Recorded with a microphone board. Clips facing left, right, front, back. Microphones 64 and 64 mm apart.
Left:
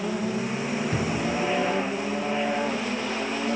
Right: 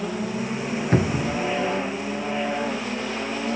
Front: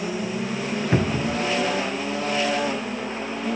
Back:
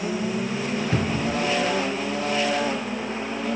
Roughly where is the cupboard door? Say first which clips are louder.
Right 4 dB, front 3 dB; ahead right.